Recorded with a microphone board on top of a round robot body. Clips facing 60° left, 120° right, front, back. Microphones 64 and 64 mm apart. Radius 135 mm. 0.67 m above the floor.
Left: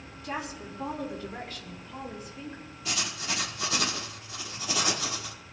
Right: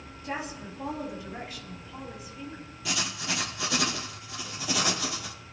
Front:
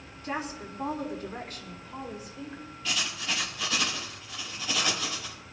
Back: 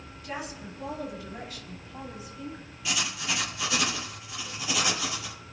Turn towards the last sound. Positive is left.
turn(degrees=-100)